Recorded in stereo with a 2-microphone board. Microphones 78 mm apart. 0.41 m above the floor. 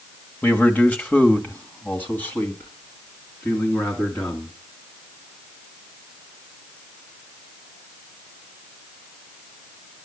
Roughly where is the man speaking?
Centre.